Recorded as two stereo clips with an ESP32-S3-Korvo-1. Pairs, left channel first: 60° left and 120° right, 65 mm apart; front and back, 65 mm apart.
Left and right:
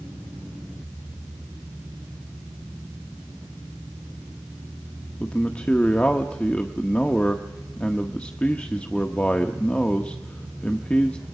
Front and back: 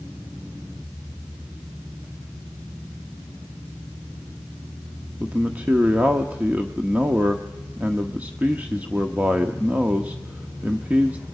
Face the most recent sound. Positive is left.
turn(degrees=125)